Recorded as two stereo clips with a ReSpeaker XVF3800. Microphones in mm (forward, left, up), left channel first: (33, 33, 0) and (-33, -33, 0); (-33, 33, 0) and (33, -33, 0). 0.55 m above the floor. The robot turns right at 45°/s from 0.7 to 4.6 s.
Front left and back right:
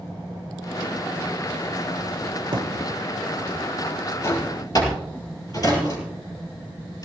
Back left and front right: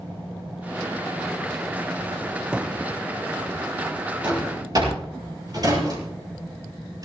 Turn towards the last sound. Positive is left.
turn(degrees=0)